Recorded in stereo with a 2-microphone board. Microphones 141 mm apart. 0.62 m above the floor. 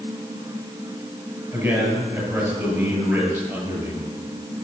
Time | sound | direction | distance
1.5 | a man speaking | 15° right (ahead or behind) | 9.5 m